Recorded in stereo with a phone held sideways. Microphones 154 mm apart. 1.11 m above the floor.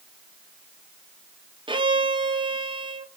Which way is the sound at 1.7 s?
35° right (ahead or behind).